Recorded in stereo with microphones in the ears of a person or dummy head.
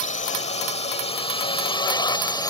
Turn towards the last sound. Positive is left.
turn(degrees=15)  # may be behind; listen again after turning